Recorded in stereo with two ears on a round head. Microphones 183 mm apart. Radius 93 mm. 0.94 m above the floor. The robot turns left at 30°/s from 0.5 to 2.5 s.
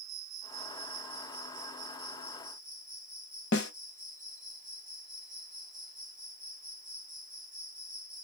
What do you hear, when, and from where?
0.0 s an insect: 95° right, 2.5 m; by 8.2 s 155° right, 2.5 m
3.5 s a snare drum: 55° left (ahead or behind), 0.7 m